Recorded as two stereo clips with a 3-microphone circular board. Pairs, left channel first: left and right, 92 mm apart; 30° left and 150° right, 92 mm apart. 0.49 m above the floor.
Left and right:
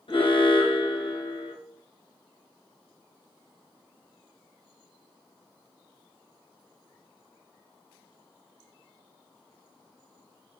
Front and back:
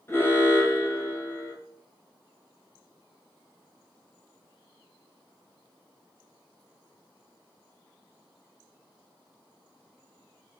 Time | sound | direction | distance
0.1 | an alarm | 90° left | 1.9 m